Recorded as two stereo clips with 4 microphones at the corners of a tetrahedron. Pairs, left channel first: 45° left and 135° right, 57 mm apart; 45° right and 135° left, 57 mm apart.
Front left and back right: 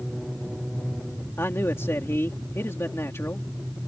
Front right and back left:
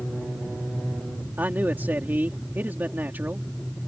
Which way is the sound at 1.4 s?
80° left.